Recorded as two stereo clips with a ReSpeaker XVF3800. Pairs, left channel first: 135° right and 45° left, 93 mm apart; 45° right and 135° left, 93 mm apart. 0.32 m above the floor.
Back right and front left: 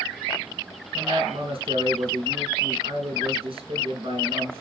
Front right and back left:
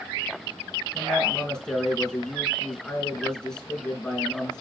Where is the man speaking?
35° left, 4 m.